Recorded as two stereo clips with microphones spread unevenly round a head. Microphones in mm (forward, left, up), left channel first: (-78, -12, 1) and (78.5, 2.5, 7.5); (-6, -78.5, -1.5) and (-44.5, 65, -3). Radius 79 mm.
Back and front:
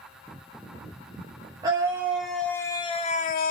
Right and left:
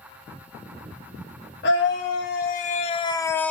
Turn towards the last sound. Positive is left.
turn(degrees=-155)